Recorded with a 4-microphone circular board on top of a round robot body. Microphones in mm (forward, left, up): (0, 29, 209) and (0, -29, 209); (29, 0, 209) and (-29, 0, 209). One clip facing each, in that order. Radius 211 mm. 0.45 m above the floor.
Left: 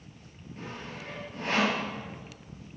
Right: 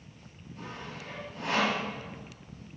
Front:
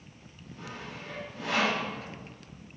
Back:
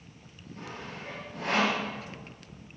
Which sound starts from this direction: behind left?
Sawing, at 0.6 s.